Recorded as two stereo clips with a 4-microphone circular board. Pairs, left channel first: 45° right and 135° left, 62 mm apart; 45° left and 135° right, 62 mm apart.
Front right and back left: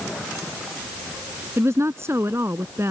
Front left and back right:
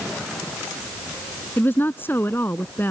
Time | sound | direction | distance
1.6 | a woman speaking | 95° left | ?